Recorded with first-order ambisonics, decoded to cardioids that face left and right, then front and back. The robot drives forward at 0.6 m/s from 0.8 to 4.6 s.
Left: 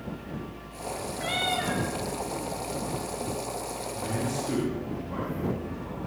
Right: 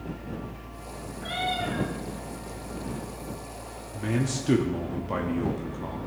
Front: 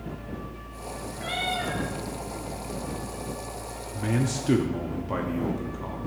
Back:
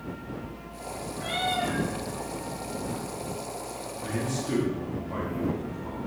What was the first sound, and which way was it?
A cat meowing, 75° left.